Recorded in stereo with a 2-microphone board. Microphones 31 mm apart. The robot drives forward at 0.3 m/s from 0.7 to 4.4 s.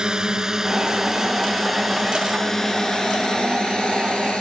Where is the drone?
25° right (ahead or behind); by 4.4 s 35° left (ahead or behind).